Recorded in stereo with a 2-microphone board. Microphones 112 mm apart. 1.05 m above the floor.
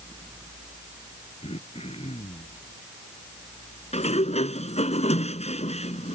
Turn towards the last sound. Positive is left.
turn(degrees=75)  # may be behind; listen again after turning